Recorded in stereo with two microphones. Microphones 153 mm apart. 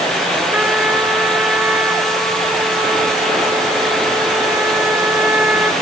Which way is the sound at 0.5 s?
10° right (ahead or behind).